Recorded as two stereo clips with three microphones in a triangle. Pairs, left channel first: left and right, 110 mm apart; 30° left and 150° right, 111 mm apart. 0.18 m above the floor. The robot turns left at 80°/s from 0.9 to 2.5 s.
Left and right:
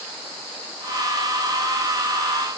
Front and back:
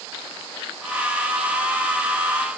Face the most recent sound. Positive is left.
No sound to turn to.